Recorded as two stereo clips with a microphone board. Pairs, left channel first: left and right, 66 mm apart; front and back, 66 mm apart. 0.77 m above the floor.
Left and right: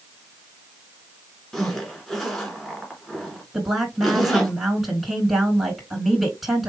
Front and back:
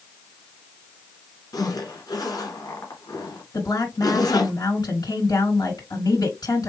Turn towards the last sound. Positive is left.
turn(degrees=-5)